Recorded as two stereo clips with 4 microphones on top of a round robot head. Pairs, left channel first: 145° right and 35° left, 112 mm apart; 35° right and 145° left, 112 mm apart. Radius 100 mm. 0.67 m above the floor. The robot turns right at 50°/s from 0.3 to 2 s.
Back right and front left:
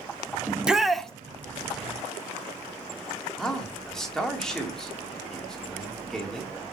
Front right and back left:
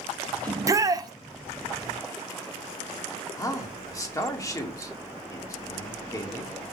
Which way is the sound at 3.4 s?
65° right.